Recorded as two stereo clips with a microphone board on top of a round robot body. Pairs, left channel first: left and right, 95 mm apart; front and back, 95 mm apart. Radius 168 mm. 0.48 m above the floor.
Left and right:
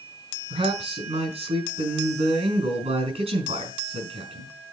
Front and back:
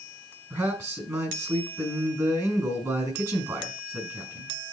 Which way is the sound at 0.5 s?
120° right.